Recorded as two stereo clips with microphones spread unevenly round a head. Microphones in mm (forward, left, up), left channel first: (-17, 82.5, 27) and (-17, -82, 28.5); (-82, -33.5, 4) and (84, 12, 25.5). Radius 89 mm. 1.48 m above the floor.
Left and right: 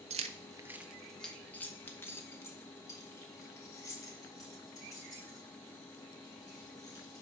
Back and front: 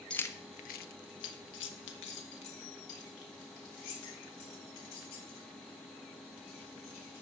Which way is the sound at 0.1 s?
75° right.